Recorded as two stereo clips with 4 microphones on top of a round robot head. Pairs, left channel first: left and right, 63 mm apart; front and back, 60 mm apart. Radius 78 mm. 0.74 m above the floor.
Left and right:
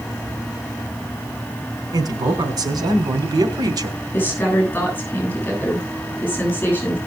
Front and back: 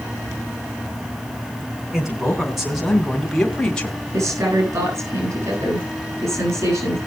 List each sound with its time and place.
1.9 s a man speaking: 100° right, 3.5 m; by 4.0 s 75° right, 1.7 m
4.1 s a woman speaking: 155° left, 8 m